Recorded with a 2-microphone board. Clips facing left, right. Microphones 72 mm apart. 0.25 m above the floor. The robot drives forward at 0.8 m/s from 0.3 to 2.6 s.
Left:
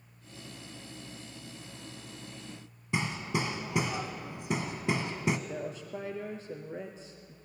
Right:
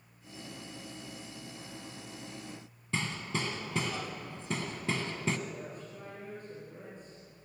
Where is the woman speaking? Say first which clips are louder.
Left 5 dB; 70° left (ahead or behind), 4 m.